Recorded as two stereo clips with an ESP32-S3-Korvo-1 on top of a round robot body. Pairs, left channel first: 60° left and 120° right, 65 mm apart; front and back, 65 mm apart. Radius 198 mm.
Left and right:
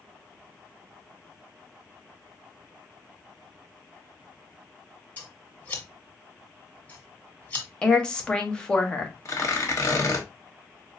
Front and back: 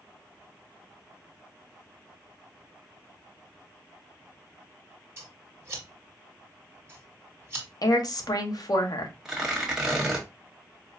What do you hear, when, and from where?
5.2 s scissors: 125° left, 1.3 m
7.8 s a woman speaking: 15° right, 1.0 m
9.2 s tearing paper: 100° left, 1.3 m